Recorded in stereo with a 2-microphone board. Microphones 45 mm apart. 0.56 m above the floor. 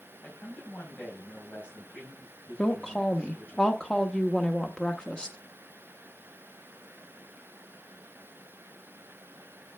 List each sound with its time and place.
0.2 s a man speaking: 40° left (ahead or behind), 4 m
2.6 s a woman speaking: 20° left (ahead or behind), 0.7 m